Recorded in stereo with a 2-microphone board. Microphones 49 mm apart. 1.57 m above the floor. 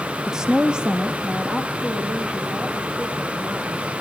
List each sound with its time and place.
0.3 s a woman speaking: 10° right (ahead or behind), 1.0 m; by 4.0 s 25° right (ahead or behind), 5.5 m